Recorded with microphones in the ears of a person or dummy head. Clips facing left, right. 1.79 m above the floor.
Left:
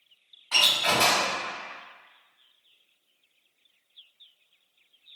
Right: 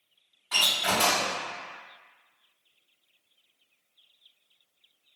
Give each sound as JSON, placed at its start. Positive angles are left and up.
{"t": 0.5, "sound": "a door slam", "side_deg": -20, "distance_m": 1.9}